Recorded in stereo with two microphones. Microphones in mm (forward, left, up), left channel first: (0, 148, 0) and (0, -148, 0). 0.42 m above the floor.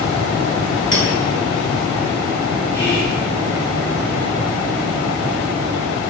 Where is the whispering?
10° right (ahead or behind), 1.4 m.